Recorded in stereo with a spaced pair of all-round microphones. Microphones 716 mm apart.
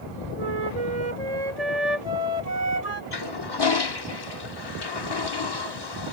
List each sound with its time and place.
0.4 s a flute: 55° right (ahead or behind)
3.1 s a toilet flushing: 35° left (ahead or behind)